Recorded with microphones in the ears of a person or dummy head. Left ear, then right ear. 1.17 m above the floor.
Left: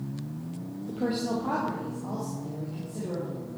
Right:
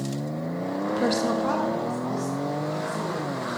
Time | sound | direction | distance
0.9 | a woman speaking | 55° right (ahead or behind) | 0.5 m